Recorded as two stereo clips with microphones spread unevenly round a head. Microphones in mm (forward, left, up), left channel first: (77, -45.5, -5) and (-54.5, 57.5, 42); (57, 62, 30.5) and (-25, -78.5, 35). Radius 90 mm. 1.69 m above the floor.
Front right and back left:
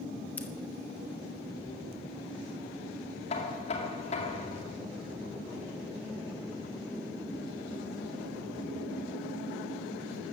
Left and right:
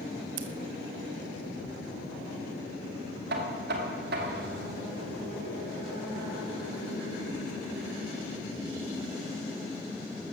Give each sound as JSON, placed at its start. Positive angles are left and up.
{"t": 0.4, "sound": "scissors", "azimuth_deg": -120, "distance_m": 1.3}
{"t": 3.3, "sound": "knocking", "azimuth_deg": -100, "distance_m": 2.0}